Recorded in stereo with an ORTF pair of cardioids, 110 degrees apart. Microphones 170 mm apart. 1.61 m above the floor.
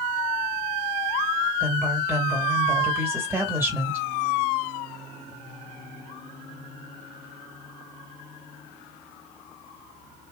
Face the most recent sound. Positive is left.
turn(degrees=-15)